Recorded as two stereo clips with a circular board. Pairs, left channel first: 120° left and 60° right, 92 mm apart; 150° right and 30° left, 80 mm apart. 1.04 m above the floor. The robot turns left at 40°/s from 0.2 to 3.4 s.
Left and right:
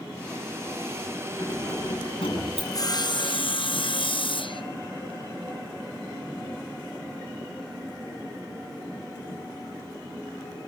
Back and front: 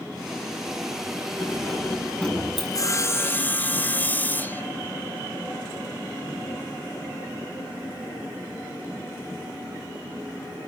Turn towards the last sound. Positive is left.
turn(degrees=140)